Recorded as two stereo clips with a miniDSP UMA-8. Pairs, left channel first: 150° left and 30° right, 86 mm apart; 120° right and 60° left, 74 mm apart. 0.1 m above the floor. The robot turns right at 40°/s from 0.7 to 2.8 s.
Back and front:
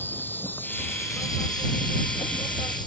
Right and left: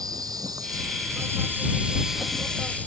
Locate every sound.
0.0 s an insect: 85° left; by 2.9 s 170° left